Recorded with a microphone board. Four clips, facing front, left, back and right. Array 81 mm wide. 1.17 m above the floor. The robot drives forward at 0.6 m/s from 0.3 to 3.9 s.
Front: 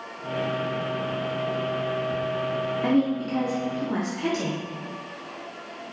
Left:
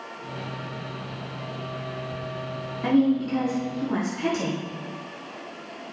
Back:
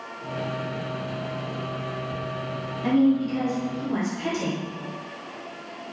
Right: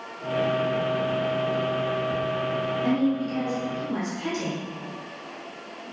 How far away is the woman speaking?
About 2.5 m.